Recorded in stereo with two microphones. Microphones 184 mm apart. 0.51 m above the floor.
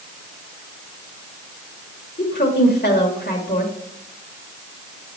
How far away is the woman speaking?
About 1.4 m.